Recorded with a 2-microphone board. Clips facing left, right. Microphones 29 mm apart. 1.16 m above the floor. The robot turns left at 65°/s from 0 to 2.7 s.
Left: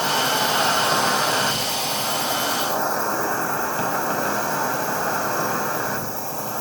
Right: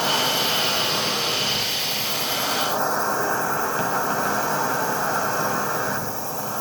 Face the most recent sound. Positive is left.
turn(degrees=0)